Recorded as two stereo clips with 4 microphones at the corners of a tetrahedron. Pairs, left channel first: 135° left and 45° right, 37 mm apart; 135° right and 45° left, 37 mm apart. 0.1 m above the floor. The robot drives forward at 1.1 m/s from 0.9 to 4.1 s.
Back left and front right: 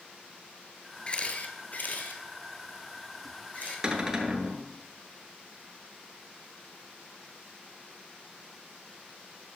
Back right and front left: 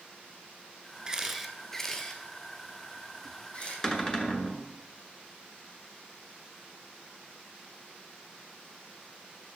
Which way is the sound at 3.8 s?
80° right.